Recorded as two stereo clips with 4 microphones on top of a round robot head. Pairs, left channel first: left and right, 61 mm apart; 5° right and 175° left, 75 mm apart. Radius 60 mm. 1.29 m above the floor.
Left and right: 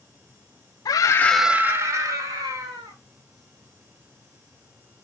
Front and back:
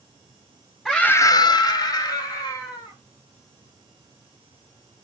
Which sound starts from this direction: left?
A scream, at 0.8 s.